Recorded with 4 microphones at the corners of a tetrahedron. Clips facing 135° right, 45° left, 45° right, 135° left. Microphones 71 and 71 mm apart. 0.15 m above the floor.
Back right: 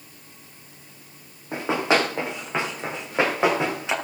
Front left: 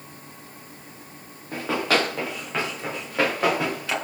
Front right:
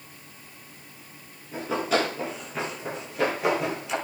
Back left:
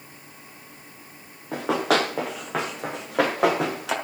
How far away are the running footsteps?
About 3.5 m.